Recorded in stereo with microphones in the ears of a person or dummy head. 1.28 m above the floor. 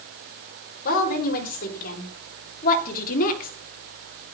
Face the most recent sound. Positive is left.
turn(degrees=45)  # may be behind; listen again after turning